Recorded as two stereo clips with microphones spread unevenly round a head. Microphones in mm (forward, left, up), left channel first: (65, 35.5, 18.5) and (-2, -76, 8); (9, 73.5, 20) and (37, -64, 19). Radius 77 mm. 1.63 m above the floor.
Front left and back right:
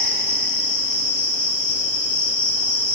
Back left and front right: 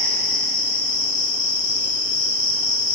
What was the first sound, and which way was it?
An insect, 115° left.